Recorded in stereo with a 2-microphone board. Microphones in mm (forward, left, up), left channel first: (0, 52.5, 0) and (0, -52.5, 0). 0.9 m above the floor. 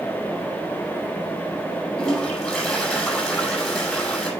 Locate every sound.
2.0 s a toilet flushing: 15° left (ahead or behind), 7 m